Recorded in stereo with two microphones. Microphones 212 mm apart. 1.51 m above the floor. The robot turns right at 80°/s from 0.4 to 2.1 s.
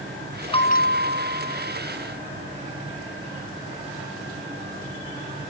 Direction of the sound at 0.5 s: 25° left.